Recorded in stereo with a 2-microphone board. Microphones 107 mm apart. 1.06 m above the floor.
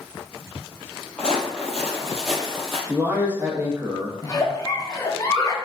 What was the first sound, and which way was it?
Footsteps, 10° left (ahead or behind).